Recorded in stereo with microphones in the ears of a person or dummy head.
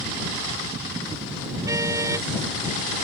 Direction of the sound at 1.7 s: 10° right (ahead or behind).